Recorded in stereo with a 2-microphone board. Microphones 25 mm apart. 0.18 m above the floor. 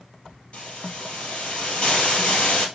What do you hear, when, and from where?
0.5 s a hiss: 50° left (ahead or behind), 2.5 m